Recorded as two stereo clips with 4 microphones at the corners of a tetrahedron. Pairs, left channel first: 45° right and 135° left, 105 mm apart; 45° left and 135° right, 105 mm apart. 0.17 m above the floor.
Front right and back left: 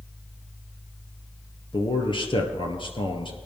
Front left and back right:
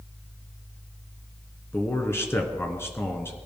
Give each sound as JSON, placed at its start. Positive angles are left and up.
{"t": 1.7, "sound": "a man speaking", "azimuth_deg": -20, "distance_m": 2.5}